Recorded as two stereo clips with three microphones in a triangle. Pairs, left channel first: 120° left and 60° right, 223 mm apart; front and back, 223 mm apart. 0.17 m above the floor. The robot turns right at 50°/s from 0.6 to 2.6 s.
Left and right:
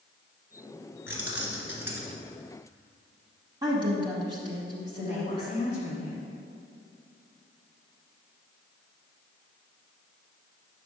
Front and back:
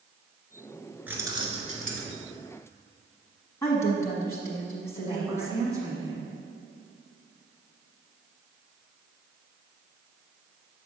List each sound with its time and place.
1.1 s keys jangling: 100° left, 1.3 m; by 2.2 s 155° left, 1.3 m
3.6 s a woman speaking: 55° right, 1.1 m
5.0 s a woman speaking: 115° left, 1.4 m